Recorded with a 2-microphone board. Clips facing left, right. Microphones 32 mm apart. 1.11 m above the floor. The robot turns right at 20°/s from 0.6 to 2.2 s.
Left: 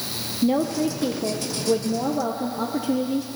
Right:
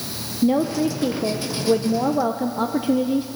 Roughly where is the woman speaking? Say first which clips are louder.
Right 2 dB; behind.